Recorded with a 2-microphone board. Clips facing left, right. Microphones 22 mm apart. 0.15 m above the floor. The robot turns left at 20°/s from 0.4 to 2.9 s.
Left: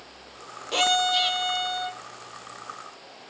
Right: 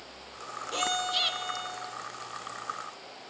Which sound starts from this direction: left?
A violin, at 0.7 s.